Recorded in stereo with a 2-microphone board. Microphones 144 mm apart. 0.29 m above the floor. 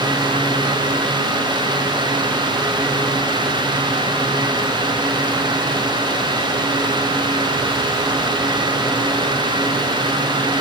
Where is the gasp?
No gasp in this recording.